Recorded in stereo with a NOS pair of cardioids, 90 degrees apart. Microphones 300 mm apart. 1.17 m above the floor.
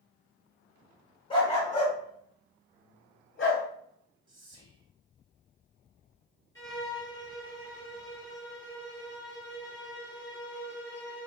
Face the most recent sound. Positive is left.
turn(degrees=10)